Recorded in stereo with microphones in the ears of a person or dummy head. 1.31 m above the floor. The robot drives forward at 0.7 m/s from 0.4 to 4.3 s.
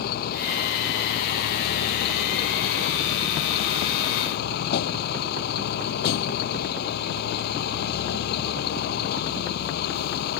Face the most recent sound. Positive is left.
turn(degrees=65)  # may be behind; listen again after turning